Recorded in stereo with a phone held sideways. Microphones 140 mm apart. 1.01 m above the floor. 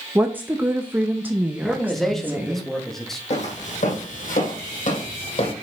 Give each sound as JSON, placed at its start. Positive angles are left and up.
{"t": 0.1, "sound": "a woman speaking", "side_deg": -10, "distance_m": 0.6}
{"t": 1.6, "sound": "a man speaking", "side_deg": 5, "distance_m": 1.5}
{"t": 3.3, "sound": "footsteps", "side_deg": 55, "distance_m": 3.5}